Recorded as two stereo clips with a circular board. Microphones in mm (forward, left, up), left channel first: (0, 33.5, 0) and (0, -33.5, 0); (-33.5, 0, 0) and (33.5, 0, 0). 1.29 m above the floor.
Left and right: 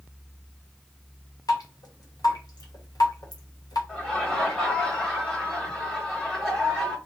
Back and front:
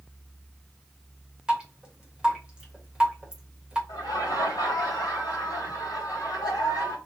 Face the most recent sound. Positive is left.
turn(degrees=170)